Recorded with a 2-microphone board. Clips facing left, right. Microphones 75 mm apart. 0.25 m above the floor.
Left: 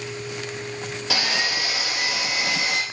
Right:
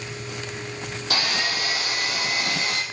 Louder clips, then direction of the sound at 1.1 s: Left 1 dB; 75° left (ahead or behind).